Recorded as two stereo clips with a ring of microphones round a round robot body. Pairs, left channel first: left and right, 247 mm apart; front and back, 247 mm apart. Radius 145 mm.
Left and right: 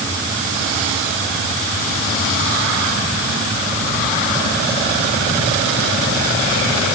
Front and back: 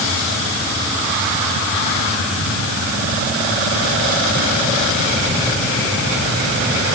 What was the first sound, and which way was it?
Only background noise.